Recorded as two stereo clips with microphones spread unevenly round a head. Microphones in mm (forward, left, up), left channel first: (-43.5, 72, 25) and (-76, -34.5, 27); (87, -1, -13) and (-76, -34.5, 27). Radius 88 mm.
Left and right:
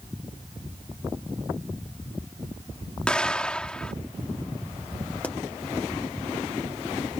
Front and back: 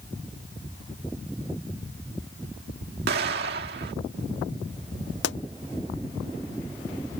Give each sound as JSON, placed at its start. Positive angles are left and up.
{"t": 3.1, "sound": "an explosion", "azimuth_deg": 155}
{"t": 5.2, "sound": "a pop", "azimuth_deg": -10}